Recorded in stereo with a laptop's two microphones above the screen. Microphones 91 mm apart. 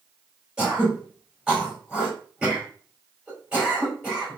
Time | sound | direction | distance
0.6 | throat clearing | 10° right (ahead or behind) | 2 m